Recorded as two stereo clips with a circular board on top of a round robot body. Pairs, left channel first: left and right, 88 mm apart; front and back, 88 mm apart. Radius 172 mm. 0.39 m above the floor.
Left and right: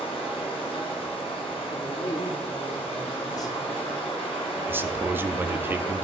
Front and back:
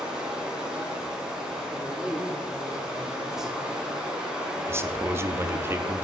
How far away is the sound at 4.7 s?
About 0.8 m.